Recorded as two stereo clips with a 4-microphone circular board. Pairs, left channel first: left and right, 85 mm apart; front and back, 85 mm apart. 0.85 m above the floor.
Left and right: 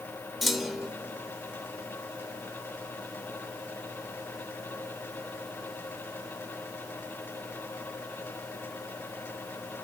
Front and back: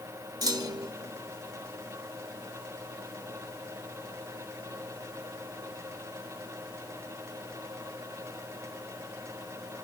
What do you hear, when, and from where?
0.4 s a clunk: straight behind, 0.7 m